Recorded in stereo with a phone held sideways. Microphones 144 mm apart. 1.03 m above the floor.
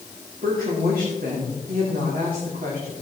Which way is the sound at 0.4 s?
80° right.